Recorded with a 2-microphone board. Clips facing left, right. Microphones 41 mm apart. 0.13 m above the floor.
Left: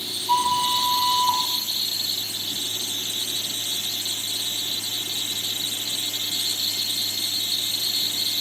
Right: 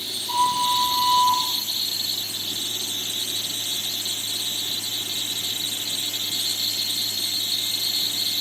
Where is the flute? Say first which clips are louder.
Even; 25° left (ahead or behind), 2.0 m.